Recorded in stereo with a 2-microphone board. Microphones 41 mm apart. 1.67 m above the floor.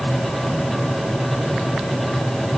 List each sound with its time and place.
Only background noise.